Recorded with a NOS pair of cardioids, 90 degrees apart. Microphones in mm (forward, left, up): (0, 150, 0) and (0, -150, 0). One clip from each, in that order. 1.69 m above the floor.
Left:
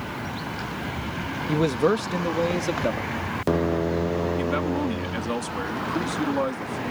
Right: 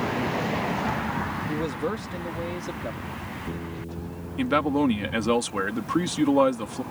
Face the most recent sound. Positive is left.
turn(degrees=-40)